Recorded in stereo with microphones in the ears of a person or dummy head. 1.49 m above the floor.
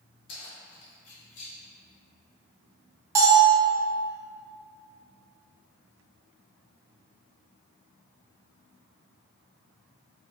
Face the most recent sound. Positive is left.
turn(degrees=-20)  # may be behind; listen again after turning